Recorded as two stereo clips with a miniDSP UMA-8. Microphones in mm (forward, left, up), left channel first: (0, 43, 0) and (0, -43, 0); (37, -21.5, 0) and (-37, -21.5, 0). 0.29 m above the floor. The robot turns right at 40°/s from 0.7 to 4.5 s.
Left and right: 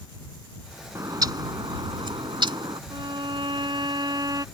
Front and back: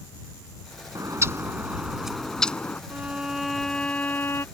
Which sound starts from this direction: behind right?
A bird, at 0.9 s.